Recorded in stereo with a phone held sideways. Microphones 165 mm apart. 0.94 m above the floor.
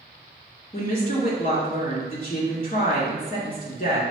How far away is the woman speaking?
About 1.6 m.